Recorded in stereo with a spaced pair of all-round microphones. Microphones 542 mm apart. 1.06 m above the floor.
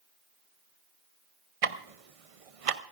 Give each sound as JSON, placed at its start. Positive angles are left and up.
{"t": 1.6, "sound": "ticking", "side_deg": -75, "distance_m": 0.8}